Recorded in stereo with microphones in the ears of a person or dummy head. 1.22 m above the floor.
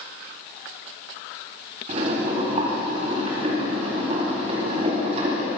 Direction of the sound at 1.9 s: 35° right (ahead or behind).